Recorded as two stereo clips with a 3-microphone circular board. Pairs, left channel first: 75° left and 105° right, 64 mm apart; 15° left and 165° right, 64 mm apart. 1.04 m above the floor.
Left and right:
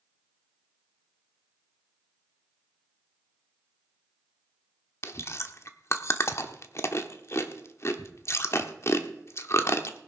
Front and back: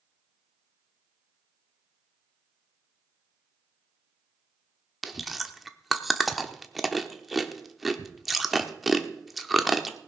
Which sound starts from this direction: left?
Chewing, at 5.0 s.